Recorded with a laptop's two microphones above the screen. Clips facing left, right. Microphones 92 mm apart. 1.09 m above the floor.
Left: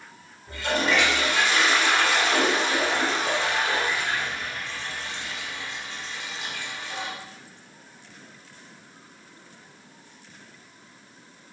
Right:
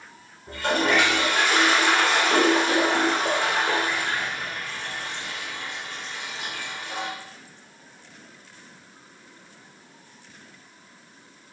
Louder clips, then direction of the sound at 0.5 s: Right 2 dB; 50° right (ahead or behind).